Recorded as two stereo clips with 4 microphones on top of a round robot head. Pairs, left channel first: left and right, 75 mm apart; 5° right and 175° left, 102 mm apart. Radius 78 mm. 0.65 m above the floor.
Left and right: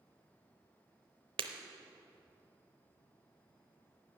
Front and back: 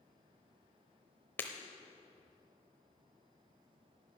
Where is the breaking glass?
80° right, 0.7 m.